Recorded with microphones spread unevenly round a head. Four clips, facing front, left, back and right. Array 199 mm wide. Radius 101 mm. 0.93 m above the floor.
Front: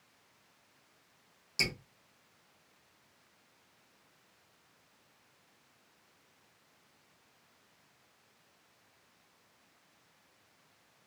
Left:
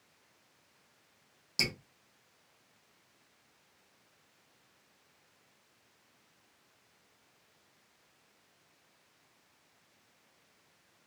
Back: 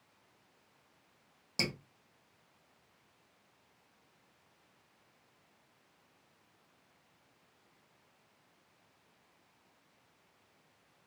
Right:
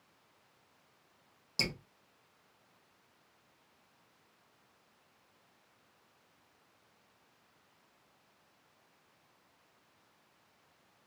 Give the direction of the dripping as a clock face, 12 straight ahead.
6 o'clock.